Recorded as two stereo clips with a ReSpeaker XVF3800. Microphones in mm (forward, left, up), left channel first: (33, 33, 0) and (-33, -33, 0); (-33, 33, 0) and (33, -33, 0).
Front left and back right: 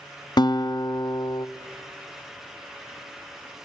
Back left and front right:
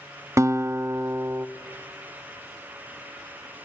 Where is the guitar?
10° left, 0.6 m.